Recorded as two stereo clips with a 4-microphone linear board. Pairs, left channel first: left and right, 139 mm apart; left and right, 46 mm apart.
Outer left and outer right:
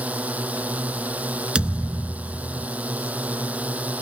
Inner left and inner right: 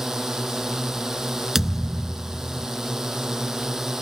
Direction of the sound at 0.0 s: 10° right (ahead or behind).